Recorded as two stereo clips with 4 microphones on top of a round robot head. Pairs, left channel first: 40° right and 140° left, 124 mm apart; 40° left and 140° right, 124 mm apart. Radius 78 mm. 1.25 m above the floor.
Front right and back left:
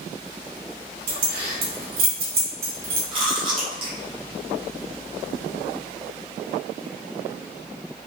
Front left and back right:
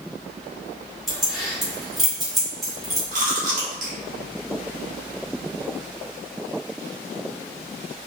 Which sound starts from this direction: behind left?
Keys jangling, at 1.1 s.